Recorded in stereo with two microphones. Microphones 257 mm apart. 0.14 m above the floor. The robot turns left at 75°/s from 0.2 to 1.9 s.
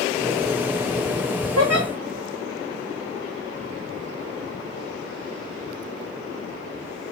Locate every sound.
1.6 s a giggle: 80° right, 2.5 m; by 1.9 s 60° right (ahead or behind), 2.5 m